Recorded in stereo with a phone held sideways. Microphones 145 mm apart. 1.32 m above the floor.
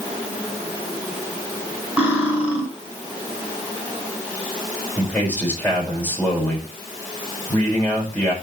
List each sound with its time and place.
2.0 s cutlery clinking: 10° right (ahead or behind), 5.5 m
5.0 s a man speaking: 10° left (ahead or behind), 5.5 m